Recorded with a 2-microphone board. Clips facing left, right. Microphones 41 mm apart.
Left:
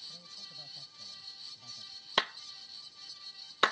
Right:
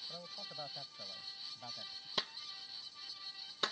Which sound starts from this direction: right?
A man speaking, at 0.1 s.